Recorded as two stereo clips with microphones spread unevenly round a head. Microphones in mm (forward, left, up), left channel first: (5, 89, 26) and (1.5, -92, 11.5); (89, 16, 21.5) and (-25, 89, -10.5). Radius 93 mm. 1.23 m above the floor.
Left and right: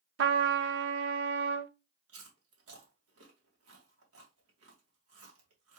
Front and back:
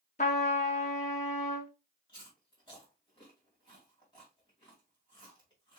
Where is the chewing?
90° right, 2 m.